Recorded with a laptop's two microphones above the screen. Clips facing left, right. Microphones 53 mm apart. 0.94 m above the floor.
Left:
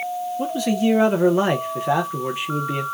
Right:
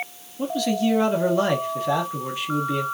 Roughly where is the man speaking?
Left.